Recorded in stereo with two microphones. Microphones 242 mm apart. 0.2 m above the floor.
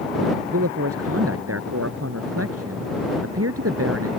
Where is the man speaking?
65° right (ahead or behind).